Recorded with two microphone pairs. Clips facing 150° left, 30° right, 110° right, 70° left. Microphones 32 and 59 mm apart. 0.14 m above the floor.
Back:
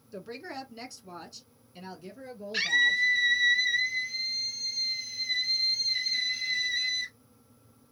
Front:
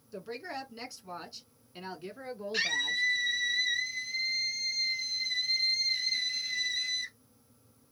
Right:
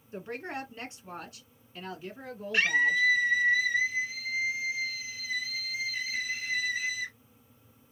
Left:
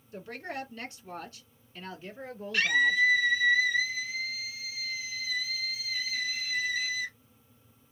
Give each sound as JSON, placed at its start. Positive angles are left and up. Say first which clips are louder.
{"t": 0.1, "sound": "a woman speaking", "louder": "even, right 1 dB", "azimuth_deg": -130, "distance_m": 1.8}
{"t": 2.5, "sound": "a scream", "louder": "back 6 dB, even", "azimuth_deg": -145, "distance_m": 1.4}